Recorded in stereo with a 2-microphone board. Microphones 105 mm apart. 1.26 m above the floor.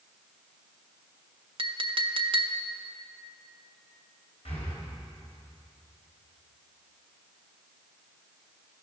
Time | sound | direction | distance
1.6 | a clink | 55° right (ahead or behind) | 0.6 m
4.5 | breathing | 75° left (ahead or behind) | 3 m